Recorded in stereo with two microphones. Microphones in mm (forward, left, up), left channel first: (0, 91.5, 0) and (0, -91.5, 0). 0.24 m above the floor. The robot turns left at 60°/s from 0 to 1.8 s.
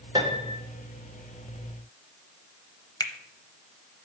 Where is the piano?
25° right (ahead or behind), 1.0 m; by 0.6 s 35° right (ahead or behind), 1.0 m.